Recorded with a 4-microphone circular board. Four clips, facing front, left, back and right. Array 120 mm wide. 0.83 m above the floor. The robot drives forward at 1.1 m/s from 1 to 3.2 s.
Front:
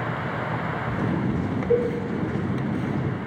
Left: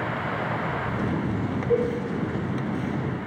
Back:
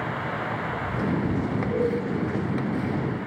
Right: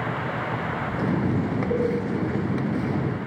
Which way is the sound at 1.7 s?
30° left.